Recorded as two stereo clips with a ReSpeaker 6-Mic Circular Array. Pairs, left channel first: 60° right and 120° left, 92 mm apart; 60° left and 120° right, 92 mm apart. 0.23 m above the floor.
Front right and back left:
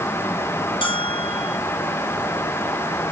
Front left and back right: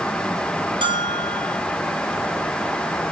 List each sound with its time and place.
0.8 s a bell: 85° right, 3 m